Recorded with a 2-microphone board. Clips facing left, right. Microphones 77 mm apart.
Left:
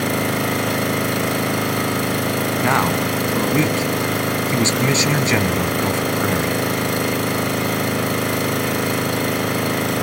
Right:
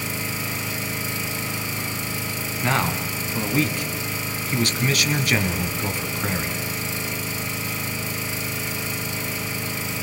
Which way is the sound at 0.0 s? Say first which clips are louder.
Left 10 dB; 65° left (ahead or behind).